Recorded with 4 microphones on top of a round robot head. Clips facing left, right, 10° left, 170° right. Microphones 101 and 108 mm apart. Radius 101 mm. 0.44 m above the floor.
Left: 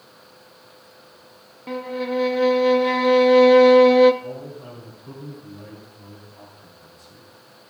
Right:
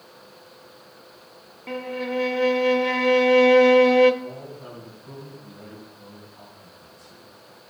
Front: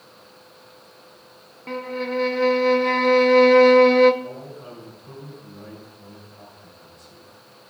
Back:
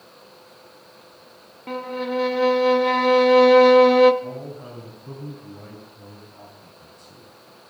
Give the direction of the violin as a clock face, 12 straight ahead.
8 o'clock.